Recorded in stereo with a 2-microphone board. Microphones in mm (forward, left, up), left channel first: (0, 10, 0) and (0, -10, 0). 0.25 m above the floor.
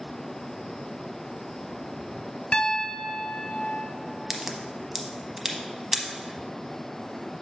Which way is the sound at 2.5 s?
55° left (ahead or behind).